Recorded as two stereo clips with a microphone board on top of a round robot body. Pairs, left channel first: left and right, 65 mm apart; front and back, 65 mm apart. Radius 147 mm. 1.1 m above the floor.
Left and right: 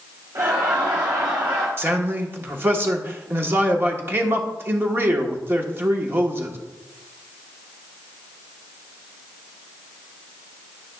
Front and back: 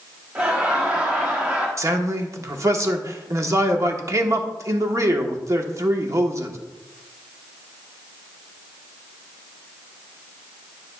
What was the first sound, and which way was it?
Laughter, 115° right.